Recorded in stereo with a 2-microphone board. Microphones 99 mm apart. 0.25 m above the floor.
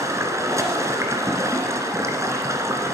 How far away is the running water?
About 1.8 m.